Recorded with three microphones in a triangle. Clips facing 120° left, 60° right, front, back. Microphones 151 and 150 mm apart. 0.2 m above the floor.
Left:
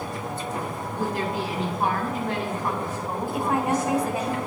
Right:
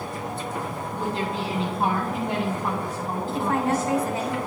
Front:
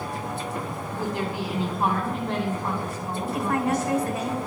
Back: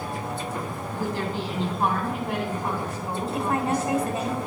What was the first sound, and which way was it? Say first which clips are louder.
A woman speaking: left 1 dB, even; 35° right.